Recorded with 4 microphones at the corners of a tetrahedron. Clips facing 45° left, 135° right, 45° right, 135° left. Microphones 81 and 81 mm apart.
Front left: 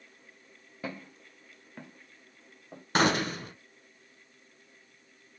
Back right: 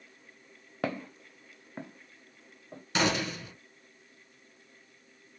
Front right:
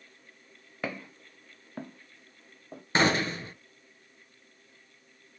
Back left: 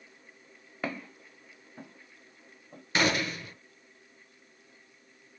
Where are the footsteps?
140° right, 1.0 m; by 2.8 s 30° right, 1.8 m.